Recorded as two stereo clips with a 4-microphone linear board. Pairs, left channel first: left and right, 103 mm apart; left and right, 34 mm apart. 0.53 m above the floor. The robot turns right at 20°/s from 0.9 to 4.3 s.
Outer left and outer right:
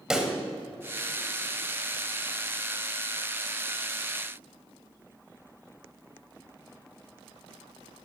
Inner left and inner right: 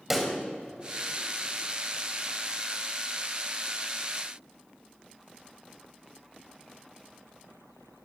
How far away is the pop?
About 2 m.